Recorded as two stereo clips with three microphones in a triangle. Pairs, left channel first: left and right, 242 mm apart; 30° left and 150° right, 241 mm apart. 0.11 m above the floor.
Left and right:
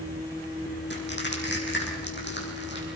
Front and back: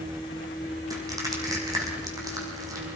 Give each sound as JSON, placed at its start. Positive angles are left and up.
{"t": 0.9, "sound": "crushing", "azimuth_deg": 135, "distance_m": 6.5}